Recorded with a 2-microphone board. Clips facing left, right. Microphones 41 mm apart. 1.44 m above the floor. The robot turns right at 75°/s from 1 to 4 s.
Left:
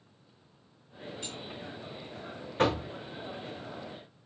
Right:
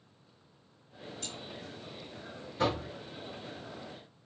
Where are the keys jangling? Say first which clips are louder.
Left 1 dB; 15° left (ahead or behind), 0.7 m; by 1.4 s 10° left (ahead or behind), 0.7 m.